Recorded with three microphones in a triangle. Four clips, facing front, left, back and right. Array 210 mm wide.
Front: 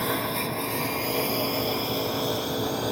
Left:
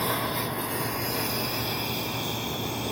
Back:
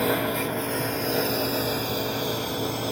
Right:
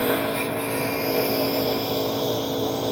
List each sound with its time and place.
0.0 s a lawn mower: 120° right; by 2.9 s 85° right